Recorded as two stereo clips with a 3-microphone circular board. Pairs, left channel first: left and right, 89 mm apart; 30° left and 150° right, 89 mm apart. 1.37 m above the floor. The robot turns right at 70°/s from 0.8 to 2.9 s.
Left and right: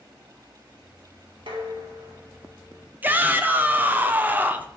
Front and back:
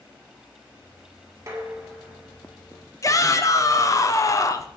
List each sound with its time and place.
1.5 s dishes clattering: 100° right, 1.9 m; by 2.9 s 5° right, 1.9 m
3.0 s a shout: 20° right, 0.7 m